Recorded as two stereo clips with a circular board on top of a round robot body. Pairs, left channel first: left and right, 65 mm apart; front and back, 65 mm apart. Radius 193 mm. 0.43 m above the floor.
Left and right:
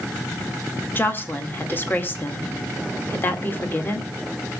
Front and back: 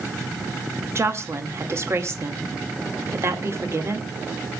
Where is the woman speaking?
145° left, 2.5 m.